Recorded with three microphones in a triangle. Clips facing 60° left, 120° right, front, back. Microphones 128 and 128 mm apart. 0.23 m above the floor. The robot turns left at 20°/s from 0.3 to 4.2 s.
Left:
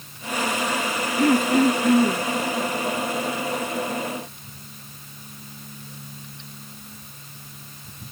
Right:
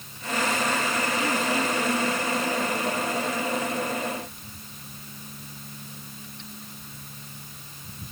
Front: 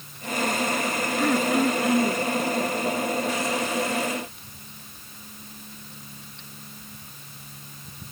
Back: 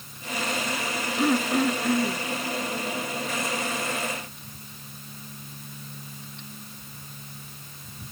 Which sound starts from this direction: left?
Throat clearing, at 1.2 s.